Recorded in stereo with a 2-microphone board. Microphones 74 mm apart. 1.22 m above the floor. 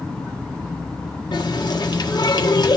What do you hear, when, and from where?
1.3 s a running tap: 70° left (ahead or behind), 1.5 m